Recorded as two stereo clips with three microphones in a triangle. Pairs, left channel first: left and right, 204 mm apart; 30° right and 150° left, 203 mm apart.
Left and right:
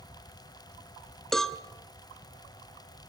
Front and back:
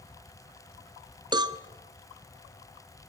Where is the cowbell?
175° left, 0.8 m.